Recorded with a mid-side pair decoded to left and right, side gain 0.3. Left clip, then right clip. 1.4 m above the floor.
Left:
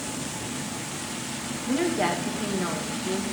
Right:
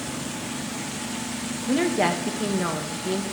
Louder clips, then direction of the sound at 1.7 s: Right 3 dB; 45° right.